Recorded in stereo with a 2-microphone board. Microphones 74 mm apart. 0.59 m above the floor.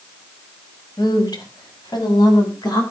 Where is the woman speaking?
70° left (ahead or behind), 4 m.